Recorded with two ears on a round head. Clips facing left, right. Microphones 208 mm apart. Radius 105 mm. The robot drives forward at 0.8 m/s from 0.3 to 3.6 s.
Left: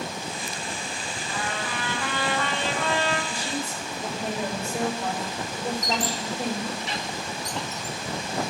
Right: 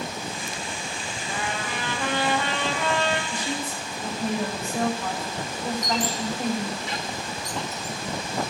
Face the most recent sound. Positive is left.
turn(degrees=55)  # may be behind; listen again after turning